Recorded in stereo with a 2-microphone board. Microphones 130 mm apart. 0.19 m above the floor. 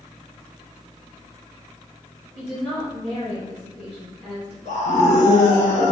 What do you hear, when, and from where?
2.4 s a woman speaking: 10° left (ahead or behind), 3 m
4.7 s a scream: 55° left (ahead or behind), 1.9 m